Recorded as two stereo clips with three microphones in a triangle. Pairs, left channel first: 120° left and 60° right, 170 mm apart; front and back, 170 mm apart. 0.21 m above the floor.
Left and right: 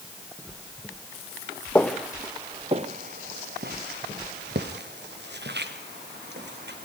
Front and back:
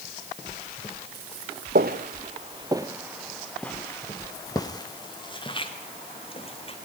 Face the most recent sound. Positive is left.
turn(degrees=-55)